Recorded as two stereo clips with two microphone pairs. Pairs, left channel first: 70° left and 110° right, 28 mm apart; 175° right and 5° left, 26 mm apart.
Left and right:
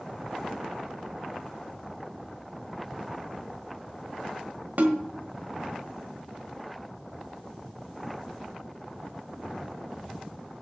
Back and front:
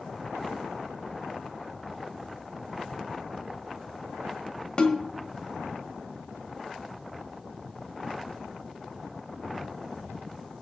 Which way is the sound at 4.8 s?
115° right.